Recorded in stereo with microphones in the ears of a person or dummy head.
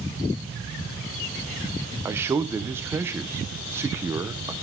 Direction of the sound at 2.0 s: 10° right (ahead or behind).